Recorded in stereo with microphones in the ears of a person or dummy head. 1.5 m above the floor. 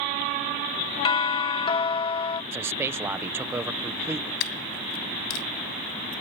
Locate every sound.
1.1 s a doorbell: 25° left (ahead or behind)
2.5 s a man speaking: 10° right (ahead or behind)
4.4 s a dropped coin: 70° left (ahead or behind)